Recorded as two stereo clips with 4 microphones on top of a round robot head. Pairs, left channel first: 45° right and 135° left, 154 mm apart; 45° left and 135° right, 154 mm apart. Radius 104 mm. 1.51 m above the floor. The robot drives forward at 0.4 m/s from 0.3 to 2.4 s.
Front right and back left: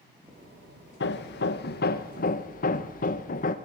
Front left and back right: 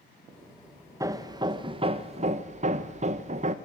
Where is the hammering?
65° right, 1.4 m; by 3.5 s 90° right, 1.2 m.